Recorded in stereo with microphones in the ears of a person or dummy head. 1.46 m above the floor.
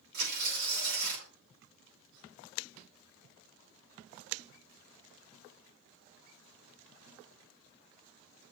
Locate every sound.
0.1 s tearing paper: 60° right (ahead or behind), 5 m